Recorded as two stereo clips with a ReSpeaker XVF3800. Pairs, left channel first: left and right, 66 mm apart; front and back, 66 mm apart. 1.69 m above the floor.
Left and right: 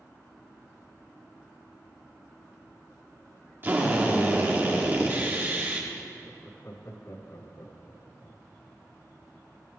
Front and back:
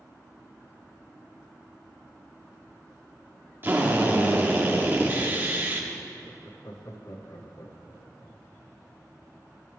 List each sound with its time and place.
3.6 s a drill: 135° right, 1.6 m
6.2 s laughter: 40° left, 1.0 m